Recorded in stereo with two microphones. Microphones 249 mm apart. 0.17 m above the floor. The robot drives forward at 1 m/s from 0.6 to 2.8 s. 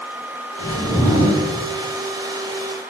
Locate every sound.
0.6 s a whoosh: 20° left (ahead or behind), 1.6 m; by 1.4 s 25° left (ahead or behind), 1.1 m